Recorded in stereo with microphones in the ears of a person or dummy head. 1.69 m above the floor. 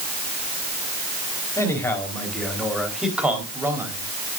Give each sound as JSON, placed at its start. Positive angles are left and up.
{"t": 1.6, "sound": "a man speaking", "side_deg": 10, "distance_m": 4.5}